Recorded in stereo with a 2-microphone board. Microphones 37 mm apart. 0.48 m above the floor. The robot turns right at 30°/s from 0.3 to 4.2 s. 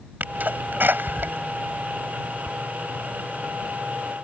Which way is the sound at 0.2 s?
55° right (ahead or behind).